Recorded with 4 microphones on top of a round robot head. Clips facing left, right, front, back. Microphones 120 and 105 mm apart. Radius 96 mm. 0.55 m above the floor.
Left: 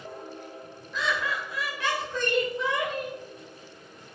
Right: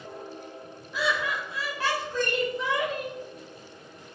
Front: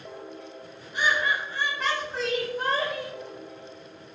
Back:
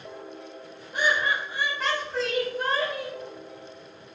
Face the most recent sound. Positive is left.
turn(degrees=-40)